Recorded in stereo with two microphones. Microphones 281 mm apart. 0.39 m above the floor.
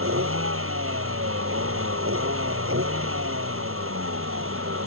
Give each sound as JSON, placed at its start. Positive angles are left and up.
{"t": 0.0, "sound": "a vehicle", "side_deg": -50}